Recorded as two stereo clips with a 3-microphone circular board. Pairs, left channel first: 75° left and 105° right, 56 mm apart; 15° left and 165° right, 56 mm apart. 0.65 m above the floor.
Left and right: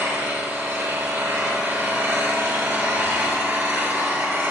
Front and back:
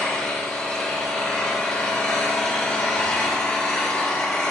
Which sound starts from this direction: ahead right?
An engine running, at 0.0 s.